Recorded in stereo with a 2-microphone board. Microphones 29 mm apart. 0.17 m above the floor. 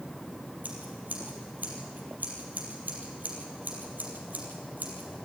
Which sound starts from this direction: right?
Scissors, at 0.6 s.